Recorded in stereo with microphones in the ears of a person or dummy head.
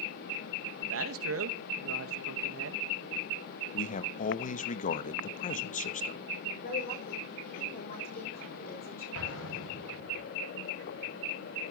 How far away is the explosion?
About 5.5 m.